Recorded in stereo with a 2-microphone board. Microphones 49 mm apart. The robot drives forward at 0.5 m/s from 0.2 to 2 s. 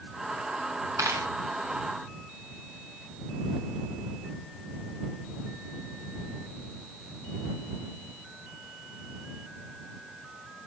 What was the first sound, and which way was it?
A dropped coin, 90° right.